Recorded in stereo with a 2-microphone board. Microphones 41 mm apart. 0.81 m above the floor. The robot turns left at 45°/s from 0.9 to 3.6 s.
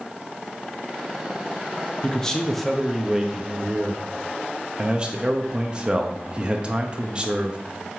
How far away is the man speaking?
About 0.8 m.